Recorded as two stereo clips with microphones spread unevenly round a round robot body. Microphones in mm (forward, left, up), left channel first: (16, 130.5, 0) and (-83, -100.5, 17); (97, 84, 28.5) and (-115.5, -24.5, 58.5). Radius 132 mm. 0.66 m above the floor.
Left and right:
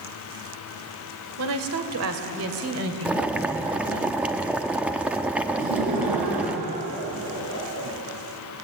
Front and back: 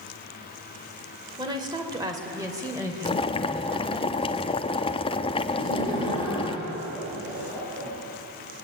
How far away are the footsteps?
I don't hear footsteps.